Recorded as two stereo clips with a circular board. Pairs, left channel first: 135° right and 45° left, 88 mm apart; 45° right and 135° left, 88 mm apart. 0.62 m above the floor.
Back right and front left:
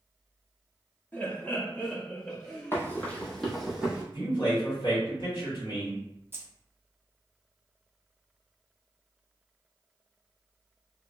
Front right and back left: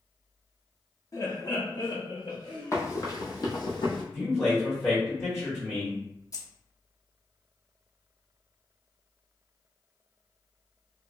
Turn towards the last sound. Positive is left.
turn(degrees=-10)